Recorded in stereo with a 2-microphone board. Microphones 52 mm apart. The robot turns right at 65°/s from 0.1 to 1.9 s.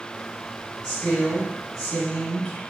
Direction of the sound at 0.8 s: 25° left (ahead or behind).